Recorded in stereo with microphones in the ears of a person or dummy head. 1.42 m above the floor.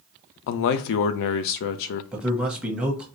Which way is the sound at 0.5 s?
60° left (ahead or behind).